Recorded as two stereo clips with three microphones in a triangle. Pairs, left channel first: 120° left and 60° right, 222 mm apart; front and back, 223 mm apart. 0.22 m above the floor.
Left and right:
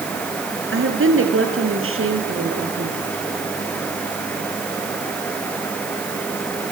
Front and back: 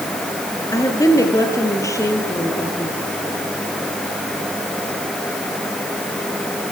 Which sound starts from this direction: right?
A woman speaking, at 0.7 s.